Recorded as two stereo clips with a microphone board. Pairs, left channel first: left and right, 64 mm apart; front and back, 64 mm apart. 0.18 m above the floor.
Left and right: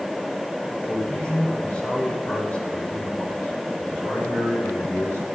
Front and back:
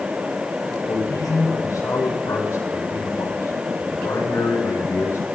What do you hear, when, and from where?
0.9 s a man speaking: 25° left, 8 m; by 5.2 s 45° left, 7.5 m